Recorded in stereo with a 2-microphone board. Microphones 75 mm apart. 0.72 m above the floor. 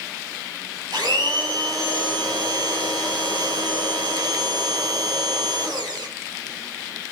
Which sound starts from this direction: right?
A blender, at 0.9 s.